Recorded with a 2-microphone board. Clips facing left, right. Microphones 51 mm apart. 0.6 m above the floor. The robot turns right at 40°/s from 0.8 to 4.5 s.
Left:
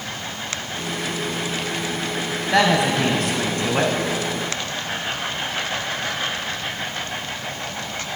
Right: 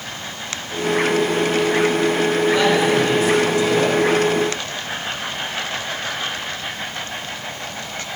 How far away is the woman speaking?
About 3.5 m.